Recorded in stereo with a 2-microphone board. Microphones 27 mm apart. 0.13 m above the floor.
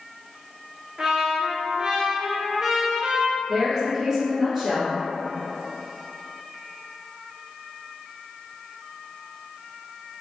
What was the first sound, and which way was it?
A trumpet, 30° right (ahead or behind).